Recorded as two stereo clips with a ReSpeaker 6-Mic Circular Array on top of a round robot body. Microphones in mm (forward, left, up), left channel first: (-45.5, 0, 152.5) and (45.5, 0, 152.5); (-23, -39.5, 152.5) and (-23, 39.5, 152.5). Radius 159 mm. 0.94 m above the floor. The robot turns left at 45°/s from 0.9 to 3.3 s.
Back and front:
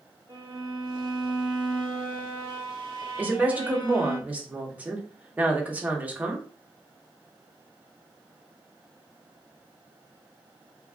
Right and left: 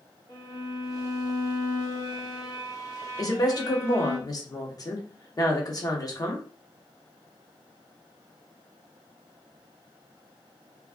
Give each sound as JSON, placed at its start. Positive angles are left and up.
{"t": 0.3, "sound": "a violin", "azimuth_deg": -50, "distance_m": 1.1}
{"t": 3.2, "sound": "a woman speaking", "azimuth_deg": -65, "distance_m": 1.0}